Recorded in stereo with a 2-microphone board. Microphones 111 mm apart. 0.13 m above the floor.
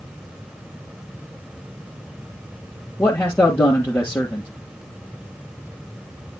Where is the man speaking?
20° left (ahead or behind), 2.5 m.